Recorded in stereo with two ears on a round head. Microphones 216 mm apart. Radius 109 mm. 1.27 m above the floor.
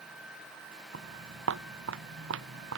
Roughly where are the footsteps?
Right.